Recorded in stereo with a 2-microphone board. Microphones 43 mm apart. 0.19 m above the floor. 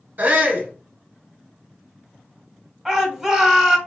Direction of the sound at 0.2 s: 45° right (ahead or behind).